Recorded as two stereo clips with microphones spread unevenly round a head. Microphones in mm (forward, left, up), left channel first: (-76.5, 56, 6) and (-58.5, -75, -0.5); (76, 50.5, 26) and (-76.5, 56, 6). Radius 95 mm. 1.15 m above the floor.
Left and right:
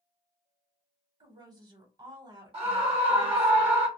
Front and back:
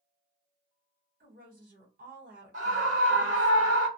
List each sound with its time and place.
1.2 s a woman speaking: 140° right, 1.2 m
2.5 s a scream: 130° right, 1.1 m